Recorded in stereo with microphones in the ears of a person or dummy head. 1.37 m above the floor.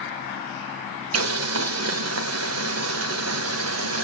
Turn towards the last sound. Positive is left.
turn(degrees=-80)